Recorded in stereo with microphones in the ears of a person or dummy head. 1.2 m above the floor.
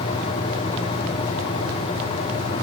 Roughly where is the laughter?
I don't hear laughter.